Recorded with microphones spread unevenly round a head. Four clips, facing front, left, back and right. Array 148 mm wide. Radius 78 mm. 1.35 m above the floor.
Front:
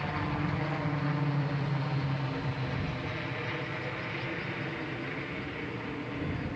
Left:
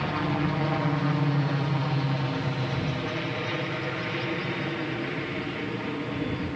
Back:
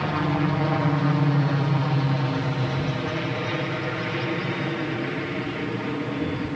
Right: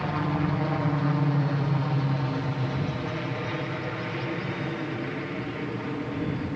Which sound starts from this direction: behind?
A helicopter, at 0.0 s.